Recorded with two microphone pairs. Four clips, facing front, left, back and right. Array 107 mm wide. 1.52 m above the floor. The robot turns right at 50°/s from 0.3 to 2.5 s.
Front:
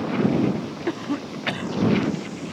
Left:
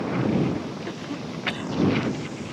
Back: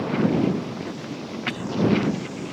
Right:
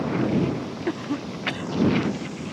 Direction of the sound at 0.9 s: 35° right.